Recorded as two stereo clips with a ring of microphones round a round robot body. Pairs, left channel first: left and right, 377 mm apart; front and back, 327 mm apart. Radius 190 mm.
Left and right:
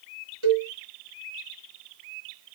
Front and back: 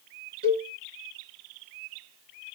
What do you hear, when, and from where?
0.4 s a cowbell: 115° right, 3.5 m